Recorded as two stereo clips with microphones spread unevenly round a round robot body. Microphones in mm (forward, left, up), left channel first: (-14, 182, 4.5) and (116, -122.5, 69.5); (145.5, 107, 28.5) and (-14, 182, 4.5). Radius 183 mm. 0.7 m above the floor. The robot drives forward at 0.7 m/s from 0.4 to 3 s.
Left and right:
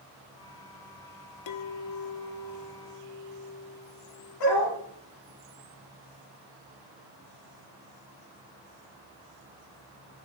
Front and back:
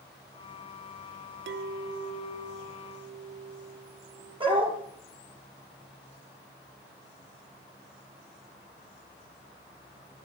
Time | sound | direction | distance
1.5 | a clink | 155° left | 0.8 m
4.4 | a dog barking | 90° left | 5 m